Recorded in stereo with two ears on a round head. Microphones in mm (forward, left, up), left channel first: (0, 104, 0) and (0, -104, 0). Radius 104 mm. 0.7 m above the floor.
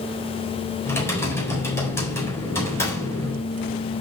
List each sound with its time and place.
0.8 s typing on a keyboard: 10° left (ahead or behind), 3.5 m